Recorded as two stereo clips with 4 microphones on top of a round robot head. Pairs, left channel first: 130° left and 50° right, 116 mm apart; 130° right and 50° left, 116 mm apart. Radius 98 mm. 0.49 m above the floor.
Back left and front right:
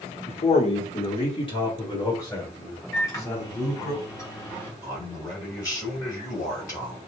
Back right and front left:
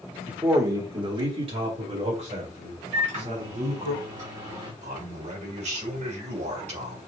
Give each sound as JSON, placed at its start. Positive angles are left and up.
{"t": 0.3, "sound": "a man speaking", "azimuth_deg": 130, "distance_m": 1.4}
{"t": 2.9, "sound": "a microwave", "azimuth_deg": 65, "distance_m": 2.5}
{"t": 4.8, "sound": "a man speaking", "azimuth_deg": 70, "distance_m": 2.5}